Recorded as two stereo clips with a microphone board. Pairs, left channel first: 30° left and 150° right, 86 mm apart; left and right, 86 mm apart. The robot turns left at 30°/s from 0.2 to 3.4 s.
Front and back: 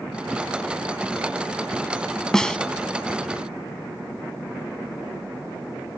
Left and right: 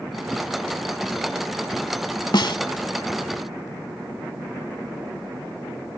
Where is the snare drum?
115° left; by 2.6 s 105° left.